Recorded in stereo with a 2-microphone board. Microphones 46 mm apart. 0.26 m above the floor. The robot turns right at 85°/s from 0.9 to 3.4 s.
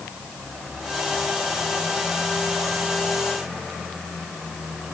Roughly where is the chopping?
No chopping in this recording.